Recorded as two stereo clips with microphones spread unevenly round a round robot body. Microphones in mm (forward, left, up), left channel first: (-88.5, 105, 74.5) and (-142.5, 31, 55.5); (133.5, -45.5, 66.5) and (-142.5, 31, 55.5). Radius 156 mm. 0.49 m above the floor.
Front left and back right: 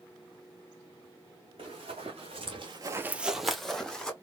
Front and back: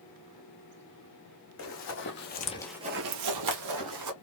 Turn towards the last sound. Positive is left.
turn(degrees=135)